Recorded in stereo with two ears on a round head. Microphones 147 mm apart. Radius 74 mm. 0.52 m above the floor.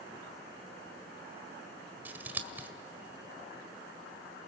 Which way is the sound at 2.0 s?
10° right (ahead or behind).